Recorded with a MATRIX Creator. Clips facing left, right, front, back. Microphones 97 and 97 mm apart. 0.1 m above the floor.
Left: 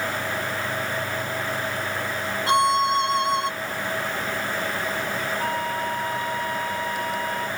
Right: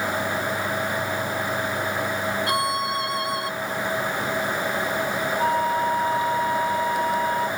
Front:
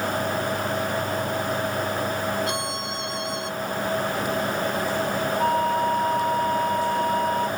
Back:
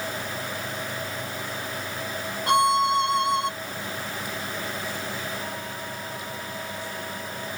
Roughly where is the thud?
No thud in this recording.